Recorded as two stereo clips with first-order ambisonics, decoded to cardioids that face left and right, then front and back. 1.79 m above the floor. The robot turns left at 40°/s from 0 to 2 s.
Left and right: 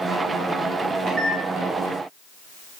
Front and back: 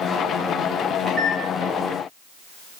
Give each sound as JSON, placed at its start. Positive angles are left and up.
{"t": 1.1, "sound": "a microwave", "azimuth_deg": -115, "distance_m": 1.0}